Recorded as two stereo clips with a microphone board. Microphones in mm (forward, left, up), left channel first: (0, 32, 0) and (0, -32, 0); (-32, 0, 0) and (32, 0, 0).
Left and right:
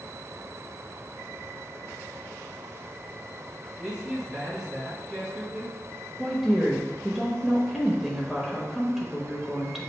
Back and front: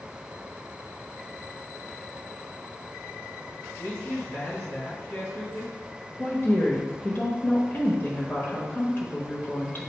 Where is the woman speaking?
175° right, 1.1 m.